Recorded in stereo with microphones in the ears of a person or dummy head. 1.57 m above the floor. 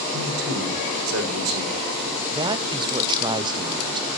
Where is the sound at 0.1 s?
75° right (ahead or behind), 6.5 m.